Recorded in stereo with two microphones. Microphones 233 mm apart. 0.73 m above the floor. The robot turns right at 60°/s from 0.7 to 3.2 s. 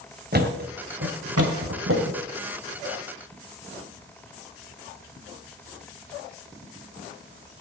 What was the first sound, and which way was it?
A thud, 45° right (ahead or behind).